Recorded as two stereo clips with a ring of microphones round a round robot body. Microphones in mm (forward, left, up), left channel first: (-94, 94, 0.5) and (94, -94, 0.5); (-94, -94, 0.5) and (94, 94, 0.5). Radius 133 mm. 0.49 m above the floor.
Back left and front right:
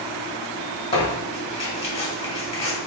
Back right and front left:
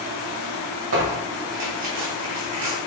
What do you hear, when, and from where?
0.9 s tearing paper: 65° left, 1.7 m